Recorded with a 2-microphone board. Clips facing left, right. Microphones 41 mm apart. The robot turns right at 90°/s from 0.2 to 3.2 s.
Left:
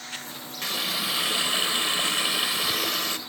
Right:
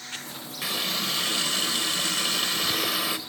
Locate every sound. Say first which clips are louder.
0.6 s a running tap: even; 5° right (ahead or behind), 0.6 m; by 3.2 s 10° right (ahead or behind), 0.6 m